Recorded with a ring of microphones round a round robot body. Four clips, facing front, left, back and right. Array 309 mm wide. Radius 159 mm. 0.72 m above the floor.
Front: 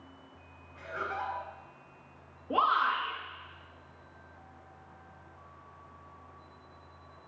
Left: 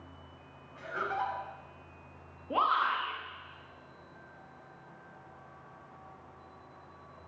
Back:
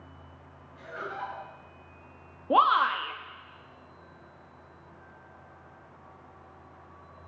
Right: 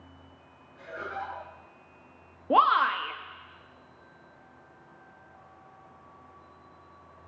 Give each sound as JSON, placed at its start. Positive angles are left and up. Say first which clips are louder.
{"t": 0.8, "sound": "laughter", "louder": "left 3 dB, front 1 dB", "azimuth_deg": 80, "distance_m": 5.0}
{"t": 2.5, "sound": "a shout", "louder": "right 7 dB, back 5 dB", "azimuth_deg": -130, "distance_m": 1.2}